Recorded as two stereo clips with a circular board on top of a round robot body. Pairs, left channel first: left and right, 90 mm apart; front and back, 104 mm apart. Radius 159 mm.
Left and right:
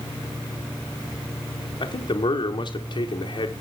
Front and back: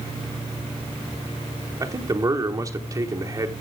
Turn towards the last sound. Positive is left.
turn(degrees=125)